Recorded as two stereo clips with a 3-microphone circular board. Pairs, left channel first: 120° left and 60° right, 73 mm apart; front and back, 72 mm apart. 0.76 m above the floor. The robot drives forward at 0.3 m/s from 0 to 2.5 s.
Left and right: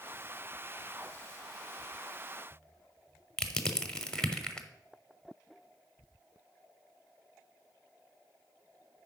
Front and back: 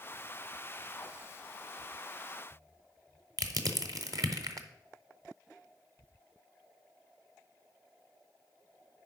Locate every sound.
3.4 s crushing: 160° right, 0.8 m